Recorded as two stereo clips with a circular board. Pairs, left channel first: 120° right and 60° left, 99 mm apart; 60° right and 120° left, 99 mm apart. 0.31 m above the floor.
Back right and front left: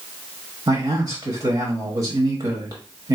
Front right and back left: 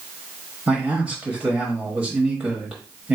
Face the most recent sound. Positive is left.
turn(degrees=50)